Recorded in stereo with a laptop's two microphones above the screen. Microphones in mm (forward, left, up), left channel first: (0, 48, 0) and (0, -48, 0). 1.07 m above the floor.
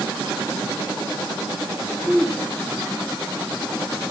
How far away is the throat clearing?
About 6 m.